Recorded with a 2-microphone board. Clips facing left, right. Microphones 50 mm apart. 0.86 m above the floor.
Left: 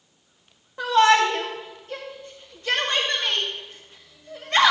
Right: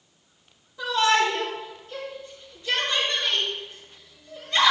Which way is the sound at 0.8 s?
60° left (ahead or behind).